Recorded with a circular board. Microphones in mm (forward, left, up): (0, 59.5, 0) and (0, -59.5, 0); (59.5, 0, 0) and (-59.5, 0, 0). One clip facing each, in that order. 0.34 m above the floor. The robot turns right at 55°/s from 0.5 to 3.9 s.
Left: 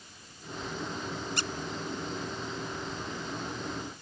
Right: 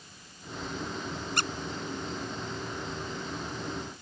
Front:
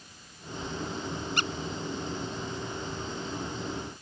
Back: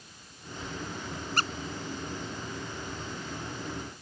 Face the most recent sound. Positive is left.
turn(degrees=10)